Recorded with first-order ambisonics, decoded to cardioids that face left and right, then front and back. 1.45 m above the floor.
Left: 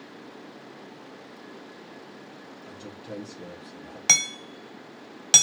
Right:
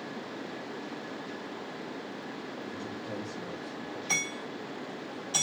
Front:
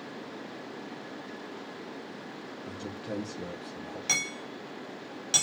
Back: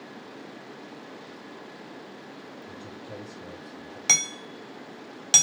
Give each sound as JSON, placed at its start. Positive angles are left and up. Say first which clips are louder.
{"t": 2.6, "sound": "a man speaking", "louder": "right 2 dB, front 6 dB", "azimuth_deg": 0, "distance_m": 1.0}
{"t": 4.1, "sound": "hammering", "louder": "left 9 dB, back 6 dB", "azimuth_deg": 115, "distance_m": 1.2}